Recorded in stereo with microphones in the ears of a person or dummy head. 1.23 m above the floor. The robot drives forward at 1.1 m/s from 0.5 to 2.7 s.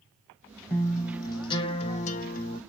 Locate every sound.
0.7 s a guitar: 15° left (ahead or behind), 1.9 m; by 2.6 s 40° left (ahead or behind), 0.7 m